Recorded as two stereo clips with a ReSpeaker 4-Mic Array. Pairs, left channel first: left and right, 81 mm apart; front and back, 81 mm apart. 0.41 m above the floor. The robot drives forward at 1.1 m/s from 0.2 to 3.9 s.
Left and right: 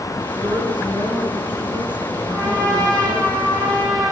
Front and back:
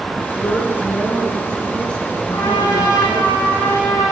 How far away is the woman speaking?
About 6 m.